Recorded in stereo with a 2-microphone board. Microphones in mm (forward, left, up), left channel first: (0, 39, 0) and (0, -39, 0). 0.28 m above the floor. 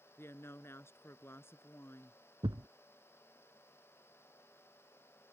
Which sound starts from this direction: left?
A woman speaking, at 0.2 s.